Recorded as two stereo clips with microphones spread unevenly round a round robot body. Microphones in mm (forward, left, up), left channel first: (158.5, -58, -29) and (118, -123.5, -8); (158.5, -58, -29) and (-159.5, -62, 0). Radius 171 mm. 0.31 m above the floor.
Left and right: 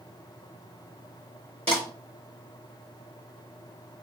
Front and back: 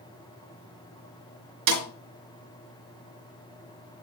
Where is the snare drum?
135° left, 4.5 m.